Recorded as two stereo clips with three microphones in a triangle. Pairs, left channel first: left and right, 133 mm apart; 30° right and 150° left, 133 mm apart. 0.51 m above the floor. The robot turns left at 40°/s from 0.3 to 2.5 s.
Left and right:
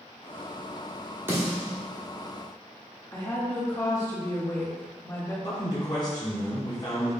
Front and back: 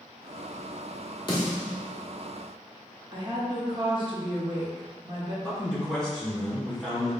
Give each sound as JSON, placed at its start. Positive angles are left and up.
{"t": 1.3, "sound": "a snare drum", "azimuth_deg": -30, "distance_m": 1.3}
{"t": 3.1, "sound": "a woman speaking", "azimuth_deg": 140, "distance_m": 1.1}
{"t": 5.4, "sound": "a man speaking", "azimuth_deg": 50, "distance_m": 1.1}